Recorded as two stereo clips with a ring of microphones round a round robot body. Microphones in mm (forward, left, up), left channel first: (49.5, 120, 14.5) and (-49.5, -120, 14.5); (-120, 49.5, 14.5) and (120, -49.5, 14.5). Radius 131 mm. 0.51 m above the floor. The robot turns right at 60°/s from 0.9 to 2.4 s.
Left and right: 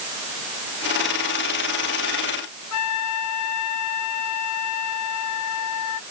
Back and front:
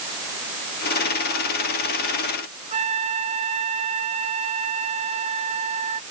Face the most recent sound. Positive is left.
turn(degrees=45)